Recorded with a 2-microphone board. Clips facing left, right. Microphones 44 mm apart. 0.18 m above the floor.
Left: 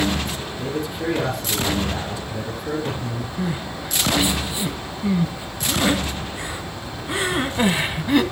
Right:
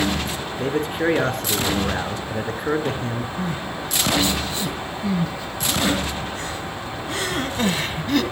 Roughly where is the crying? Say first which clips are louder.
Even; centre.